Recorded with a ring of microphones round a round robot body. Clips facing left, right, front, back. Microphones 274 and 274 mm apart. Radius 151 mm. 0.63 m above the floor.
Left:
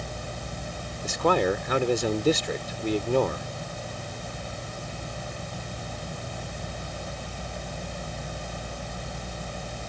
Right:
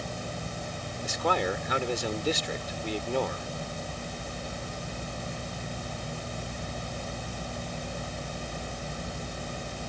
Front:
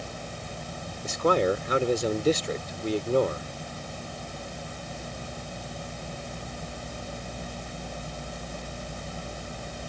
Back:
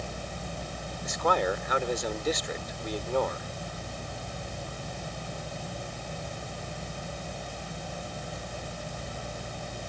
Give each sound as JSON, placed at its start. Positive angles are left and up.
{"t": 1.0, "sound": "a man speaking", "azimuth_deg": 55}